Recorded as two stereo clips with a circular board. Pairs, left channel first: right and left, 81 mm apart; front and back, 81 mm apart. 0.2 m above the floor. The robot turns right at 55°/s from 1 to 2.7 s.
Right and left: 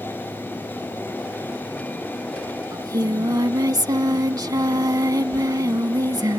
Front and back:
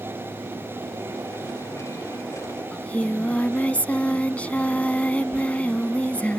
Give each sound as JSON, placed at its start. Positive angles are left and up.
{"t": 2.7, "sound": "singing", "azimuth_deg": 70}